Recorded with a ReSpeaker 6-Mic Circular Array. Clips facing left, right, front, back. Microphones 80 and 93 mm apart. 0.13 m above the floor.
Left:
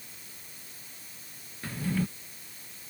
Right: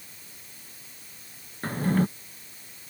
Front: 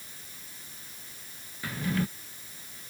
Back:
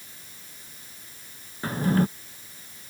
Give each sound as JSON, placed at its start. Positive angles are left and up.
{"t": 1.6, "sound": "a drawer", "azimuth_deg": -130}